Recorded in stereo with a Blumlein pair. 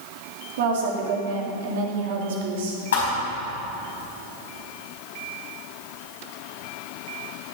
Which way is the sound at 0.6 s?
55° right.